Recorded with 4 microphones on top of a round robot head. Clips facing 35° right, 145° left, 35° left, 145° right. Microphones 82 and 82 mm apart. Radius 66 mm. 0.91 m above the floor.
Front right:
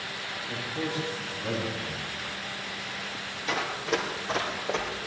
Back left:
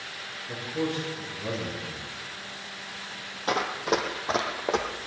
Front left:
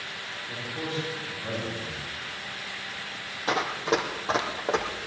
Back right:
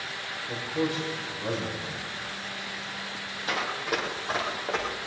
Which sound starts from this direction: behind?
A man speaking, at 0.5 s.